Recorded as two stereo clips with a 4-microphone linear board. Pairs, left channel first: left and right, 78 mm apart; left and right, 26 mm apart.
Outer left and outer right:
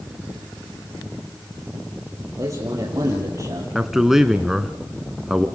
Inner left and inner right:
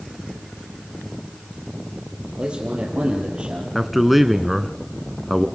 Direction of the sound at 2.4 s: 40° right (ahead or behind).